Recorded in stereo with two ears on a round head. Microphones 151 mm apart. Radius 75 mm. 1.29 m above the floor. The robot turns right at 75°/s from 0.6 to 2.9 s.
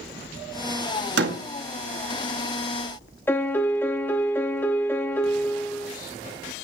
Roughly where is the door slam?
Right.